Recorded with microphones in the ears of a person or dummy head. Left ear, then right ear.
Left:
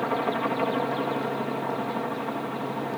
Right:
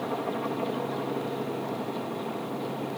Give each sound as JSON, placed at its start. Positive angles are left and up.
{"t": 0.0, "sound": "a helicopter", "side_deg": 55}